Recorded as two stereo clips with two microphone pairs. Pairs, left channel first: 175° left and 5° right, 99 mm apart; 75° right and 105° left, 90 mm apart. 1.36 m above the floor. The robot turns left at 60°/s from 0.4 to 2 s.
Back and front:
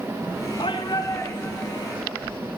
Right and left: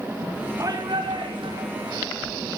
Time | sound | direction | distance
0.6 | a shout | 155° left | 3.5 m